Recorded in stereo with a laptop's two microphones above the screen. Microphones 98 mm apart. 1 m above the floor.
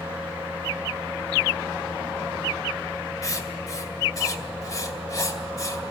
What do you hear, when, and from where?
0.0 s a fan: 20° right (ahead or behind), 4 m
3.2 s writing: 35° left (ahead or behind), 2 m